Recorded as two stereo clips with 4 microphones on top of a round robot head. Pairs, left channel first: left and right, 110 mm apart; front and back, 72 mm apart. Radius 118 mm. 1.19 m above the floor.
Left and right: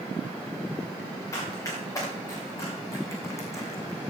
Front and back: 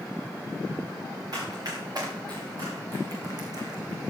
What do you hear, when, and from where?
1.3 s running footsteps: 150° left, 7 m; by 4.0 s 155° left, 2.5 m